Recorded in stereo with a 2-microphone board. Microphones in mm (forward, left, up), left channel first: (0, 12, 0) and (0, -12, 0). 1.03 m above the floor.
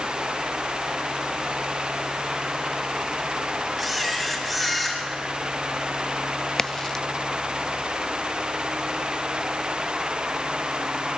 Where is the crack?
20° left (ahead or behind), 0.5 m.